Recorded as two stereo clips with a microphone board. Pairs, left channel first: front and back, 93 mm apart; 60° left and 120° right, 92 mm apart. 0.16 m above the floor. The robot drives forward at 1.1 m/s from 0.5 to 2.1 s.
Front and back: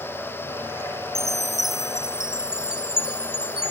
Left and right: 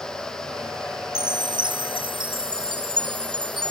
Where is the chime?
85° right; by 3.7 s 100° right.